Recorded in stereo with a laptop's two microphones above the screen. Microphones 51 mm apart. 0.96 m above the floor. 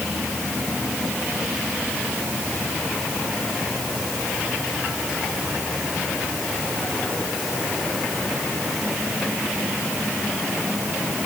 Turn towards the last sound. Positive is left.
No sound to turn to.